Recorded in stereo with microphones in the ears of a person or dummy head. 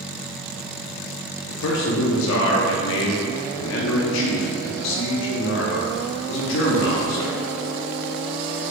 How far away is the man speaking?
About 0.6 m.